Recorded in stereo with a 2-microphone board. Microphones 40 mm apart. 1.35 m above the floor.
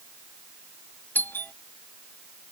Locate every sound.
1.1 s a doorbell: 60° left (ahead or behind)